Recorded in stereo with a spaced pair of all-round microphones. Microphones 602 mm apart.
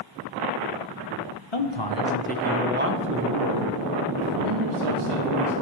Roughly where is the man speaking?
Left.